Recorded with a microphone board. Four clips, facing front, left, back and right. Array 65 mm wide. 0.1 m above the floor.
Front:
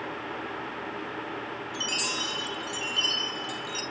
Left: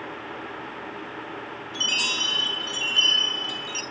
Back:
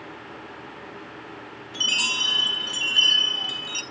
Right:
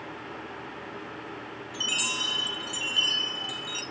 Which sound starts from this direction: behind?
A chime, at 1.7 s.